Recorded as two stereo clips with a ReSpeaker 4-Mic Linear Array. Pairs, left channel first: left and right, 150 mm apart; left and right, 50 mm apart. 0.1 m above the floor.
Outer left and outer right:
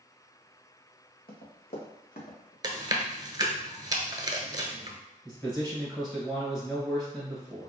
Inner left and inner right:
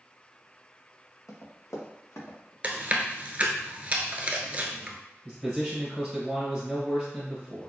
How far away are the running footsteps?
About 1.6 m.